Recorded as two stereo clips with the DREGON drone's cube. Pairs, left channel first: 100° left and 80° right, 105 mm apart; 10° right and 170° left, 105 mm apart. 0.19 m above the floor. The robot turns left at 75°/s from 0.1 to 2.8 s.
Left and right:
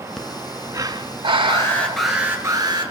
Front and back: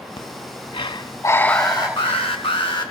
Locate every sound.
0.2 s breathing: 15° left, 0.5 m; by 2.5 s 160° right, 0.5 m
1.5 s an alarm: 50° left, 2 m; by 2.9 s 45° right, 2 m